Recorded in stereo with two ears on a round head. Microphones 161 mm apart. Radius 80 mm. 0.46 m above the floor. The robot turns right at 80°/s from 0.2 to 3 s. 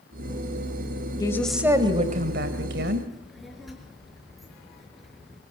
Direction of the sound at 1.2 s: 155° left.